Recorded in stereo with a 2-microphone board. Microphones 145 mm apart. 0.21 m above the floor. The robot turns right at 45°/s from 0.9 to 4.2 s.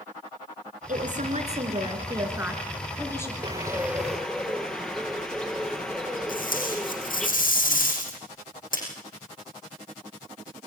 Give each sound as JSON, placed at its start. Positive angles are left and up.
{"t": 0.9, "sound": "a woman speaking", "azimuth_deg": -85, "distance_m": 3.0}
{"t": 3.4, "sound": "a bird", "azimuth_deg": -30, "distance_m": 2.5}
{"t": 6.3, "sound": "tape being pulled", "side_deg": 70, "distance_m": 6.5}